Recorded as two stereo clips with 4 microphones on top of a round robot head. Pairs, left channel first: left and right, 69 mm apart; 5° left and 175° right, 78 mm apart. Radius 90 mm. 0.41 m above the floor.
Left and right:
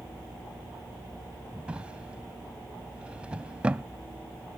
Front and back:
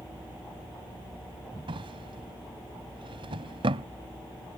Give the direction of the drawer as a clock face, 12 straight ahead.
6 o'clock.